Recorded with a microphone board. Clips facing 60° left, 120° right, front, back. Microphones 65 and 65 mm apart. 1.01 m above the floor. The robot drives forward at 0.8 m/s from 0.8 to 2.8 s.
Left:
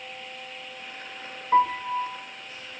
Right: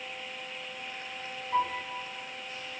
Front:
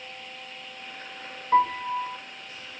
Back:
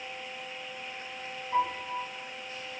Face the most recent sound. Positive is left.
turn(degrees=75)